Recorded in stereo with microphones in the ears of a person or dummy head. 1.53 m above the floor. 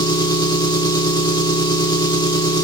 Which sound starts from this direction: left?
An engine running, at 0.0 s.